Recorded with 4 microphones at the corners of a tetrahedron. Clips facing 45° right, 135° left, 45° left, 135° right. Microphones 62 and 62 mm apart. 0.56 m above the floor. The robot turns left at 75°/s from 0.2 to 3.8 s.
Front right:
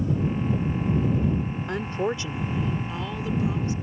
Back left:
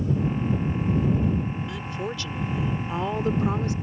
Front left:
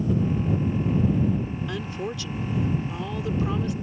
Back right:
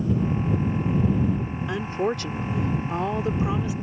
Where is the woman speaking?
70° right; by 3.7 s 135° left.